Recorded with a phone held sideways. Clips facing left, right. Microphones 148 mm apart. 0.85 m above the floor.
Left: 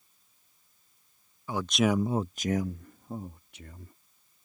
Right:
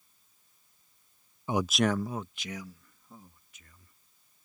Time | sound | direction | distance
1.5 | a man speaking | 25° right (ahead or behind) | ?